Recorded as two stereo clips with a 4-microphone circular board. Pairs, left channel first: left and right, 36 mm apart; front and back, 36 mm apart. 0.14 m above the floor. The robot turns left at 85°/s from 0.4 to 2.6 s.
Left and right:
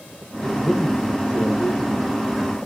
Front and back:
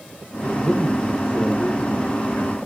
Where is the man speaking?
165° left, 2.5 m; by 2.6 s 20° right, 2.5 m.